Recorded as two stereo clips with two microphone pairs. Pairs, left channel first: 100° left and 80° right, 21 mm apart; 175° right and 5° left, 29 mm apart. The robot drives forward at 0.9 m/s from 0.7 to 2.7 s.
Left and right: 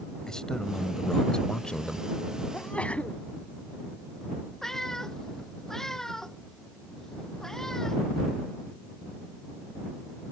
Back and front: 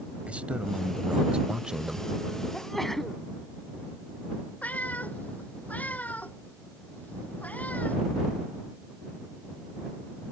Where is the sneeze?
105° left.